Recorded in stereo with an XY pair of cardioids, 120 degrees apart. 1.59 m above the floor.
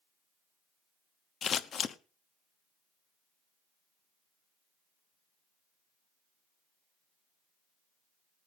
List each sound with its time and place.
1.4 s scissors: 45° left, 0.9 m